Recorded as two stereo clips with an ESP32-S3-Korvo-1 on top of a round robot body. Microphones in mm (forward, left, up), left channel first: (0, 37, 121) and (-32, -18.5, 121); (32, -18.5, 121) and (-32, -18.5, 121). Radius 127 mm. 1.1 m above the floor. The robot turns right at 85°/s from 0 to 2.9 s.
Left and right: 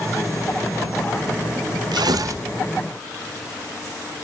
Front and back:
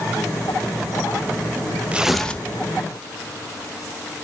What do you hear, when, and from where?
1.9 s tearing paper: 110° right, 0.7 m; by 2.5 s 60° right, 0.7 m